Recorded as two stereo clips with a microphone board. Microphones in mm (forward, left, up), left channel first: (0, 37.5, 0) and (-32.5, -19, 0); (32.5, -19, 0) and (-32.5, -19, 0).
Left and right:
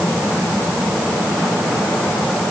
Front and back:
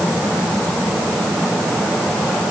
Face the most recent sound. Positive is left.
No sound to turn to.